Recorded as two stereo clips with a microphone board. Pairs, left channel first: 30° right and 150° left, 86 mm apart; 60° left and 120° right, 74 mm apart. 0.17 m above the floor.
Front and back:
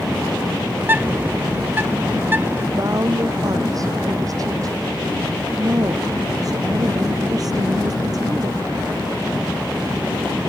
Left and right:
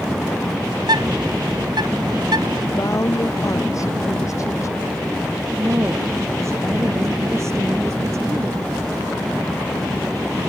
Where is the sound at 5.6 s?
165° right.